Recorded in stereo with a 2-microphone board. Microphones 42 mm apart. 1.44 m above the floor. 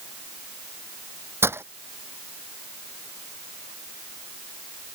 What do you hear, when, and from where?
1.4 s breaking glass: 70° right (ahead or behind)